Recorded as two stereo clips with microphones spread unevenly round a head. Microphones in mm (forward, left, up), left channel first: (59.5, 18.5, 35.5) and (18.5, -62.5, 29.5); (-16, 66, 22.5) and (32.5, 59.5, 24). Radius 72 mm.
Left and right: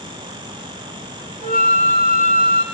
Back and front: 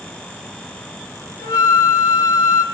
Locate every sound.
1.4 s a flute: 165° right, 2.5 m